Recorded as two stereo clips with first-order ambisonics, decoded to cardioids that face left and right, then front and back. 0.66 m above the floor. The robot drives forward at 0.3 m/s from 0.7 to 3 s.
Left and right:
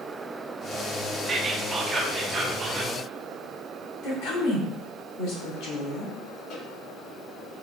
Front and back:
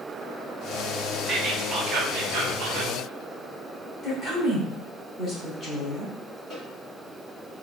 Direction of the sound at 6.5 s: 105° left.